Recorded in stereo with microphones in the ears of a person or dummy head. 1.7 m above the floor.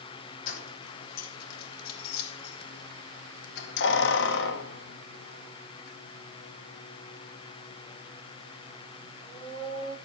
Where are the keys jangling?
50° left (ahead or behind), 3 m; by 9.9 s 10° left (ahead or behind), 3 m.